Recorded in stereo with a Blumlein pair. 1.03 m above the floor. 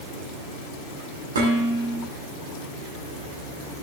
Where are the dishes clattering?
70° right, 6 m.